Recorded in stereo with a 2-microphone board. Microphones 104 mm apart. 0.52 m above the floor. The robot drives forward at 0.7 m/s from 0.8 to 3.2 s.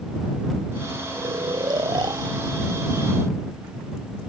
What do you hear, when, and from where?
1.1 s snoring: 45° right (ahead or behind); by 4.3 s 40° right (ahead or behind)